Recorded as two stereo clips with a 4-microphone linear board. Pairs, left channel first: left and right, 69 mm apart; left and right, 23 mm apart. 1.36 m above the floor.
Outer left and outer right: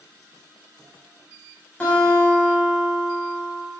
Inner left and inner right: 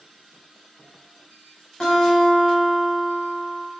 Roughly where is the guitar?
Centre.